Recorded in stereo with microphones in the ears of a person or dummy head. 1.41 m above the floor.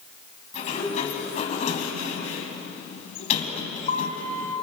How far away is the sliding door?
About 4 m.